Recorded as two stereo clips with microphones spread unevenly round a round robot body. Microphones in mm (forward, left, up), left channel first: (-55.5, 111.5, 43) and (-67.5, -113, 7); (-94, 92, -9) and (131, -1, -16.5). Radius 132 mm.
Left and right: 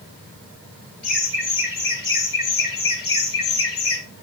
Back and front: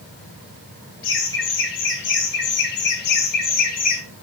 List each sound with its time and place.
1.0 s laughter: 125° left, 4 m; by 4.0 s 105° left, 2.5 m